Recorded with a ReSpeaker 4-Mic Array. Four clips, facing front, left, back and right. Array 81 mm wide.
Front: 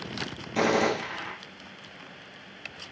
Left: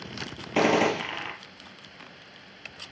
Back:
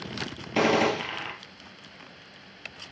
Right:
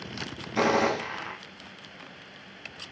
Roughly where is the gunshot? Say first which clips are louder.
Left 2 dB, back 1 dB; left.